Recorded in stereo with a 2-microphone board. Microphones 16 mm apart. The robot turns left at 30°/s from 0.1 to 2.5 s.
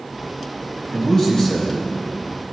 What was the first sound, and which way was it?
A man speaking, 35° left (ahead or behind).